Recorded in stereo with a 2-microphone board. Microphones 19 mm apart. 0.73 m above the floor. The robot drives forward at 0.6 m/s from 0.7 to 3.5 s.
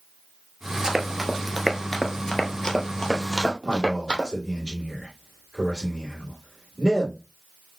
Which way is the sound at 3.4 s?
40° left (ahead or behind).